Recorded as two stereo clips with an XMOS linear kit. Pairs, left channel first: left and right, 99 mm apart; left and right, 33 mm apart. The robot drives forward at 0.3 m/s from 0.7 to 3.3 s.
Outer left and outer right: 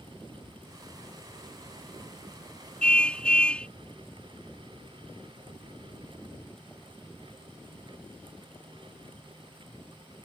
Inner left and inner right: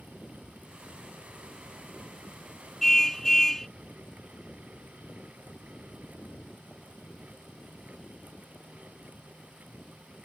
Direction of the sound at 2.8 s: 10° left (ahead or behind).